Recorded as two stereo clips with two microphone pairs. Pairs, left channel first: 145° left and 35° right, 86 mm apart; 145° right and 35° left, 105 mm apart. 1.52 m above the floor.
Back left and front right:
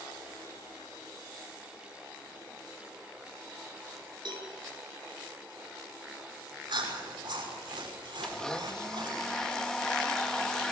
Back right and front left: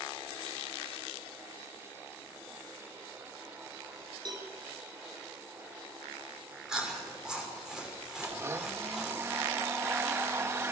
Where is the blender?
70° left, 0.9 m.